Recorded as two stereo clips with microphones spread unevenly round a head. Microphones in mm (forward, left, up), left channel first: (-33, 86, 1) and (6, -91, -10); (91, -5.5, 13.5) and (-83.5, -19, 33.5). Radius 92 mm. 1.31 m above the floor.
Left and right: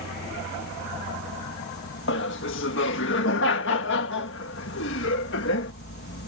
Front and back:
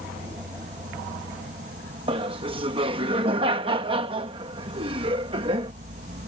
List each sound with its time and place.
0.0 s an insect: 135° left
2.1 s laughter: 120° left